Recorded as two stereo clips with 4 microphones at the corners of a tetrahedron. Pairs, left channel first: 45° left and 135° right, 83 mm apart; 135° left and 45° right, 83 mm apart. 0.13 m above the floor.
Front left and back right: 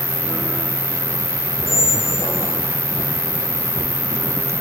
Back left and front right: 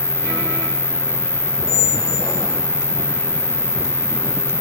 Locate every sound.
0.0 s an insect: 130° right, 1.8 m
1.7 s a squeak: 100° left, 2.5 m